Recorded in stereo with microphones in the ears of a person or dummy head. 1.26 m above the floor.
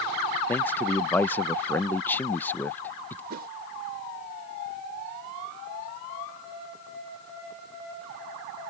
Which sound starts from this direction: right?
A whoosh, at 3.3 s.